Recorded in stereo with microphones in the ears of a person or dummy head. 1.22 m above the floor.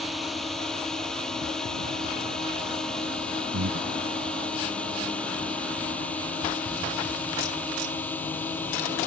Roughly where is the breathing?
Right.